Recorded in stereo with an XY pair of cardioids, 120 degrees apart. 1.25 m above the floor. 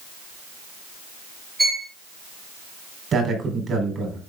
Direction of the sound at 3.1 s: 40° right.